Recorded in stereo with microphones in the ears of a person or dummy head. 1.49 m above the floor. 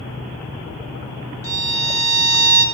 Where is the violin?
20° left (ahead or behind), 2.5 m.